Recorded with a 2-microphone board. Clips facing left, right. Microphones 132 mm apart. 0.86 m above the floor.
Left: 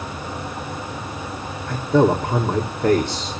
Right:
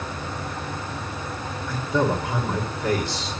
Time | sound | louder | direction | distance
1.7 | a man speaking | left 7 dB | 50° left (ahead or behind) | 2.5 m